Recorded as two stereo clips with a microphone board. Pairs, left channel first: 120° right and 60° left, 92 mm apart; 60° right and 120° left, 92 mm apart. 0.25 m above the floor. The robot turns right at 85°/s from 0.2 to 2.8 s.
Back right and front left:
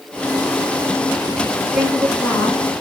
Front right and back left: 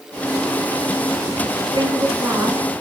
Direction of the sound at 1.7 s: 130° left.